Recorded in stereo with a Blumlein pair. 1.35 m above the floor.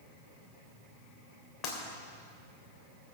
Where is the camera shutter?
No camera shutter in this recording.